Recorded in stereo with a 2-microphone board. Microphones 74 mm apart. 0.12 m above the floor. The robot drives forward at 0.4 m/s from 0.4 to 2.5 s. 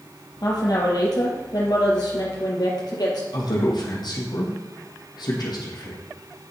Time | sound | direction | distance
0.4 | a woman speaking | 60° left (ahead or behind) | 4 m
3.3 | a man speaking | 75° left (ahead or behind) | 3.5 m